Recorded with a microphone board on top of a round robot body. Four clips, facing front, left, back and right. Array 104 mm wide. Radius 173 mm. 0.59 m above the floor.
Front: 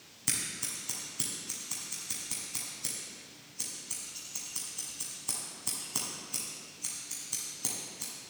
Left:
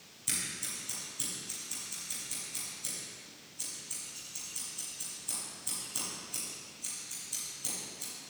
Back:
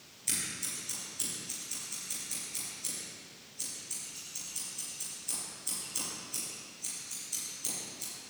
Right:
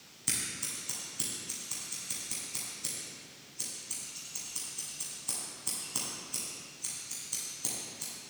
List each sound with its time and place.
0.3 s scissors: 25° right, 1.5 m